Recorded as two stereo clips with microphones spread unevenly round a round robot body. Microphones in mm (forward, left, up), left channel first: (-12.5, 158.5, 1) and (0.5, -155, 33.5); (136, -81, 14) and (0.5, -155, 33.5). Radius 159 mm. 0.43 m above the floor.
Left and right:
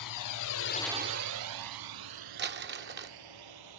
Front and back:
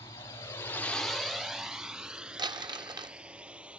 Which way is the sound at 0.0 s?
105° left.